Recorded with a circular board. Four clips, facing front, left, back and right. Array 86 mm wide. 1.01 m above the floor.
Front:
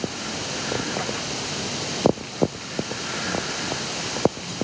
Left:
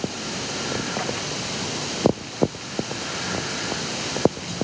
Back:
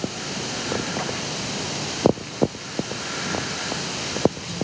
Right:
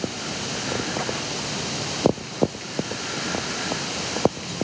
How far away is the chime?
I don't hear a chime.